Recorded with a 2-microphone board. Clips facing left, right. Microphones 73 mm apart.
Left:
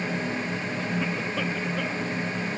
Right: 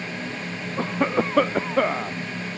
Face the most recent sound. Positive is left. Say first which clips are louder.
# right 10 dB
turn(degrees=-50)  # may be behind; listen again after turning